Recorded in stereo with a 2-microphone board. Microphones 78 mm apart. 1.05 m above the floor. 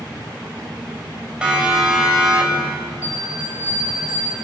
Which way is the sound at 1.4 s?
10° right (ahead or behind).